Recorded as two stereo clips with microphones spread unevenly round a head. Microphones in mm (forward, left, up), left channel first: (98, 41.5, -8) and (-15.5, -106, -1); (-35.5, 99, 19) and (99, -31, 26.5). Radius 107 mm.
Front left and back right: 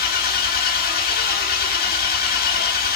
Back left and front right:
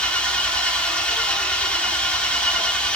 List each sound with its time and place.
0.0 s an engine running: 50° left, 1.8 m